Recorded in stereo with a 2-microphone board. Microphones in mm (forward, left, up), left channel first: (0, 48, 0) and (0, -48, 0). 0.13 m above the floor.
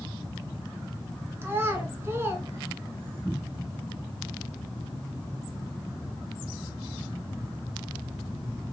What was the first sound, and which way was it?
A child speaking, 25° right (ahead or behind).